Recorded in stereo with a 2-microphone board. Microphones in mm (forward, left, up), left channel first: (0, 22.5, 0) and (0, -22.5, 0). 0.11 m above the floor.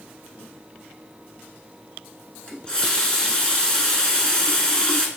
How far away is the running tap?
About 0.7 m.